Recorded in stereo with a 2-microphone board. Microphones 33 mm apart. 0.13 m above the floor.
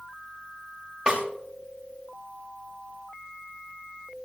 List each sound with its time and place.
1.1 s a snare drum: 15° right (ahead or behind), 5 m